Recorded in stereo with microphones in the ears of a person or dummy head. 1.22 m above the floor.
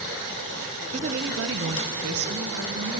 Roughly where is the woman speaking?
Right.